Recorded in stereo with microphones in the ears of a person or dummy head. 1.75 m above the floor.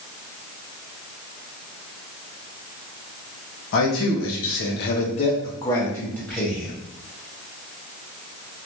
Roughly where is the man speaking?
Left.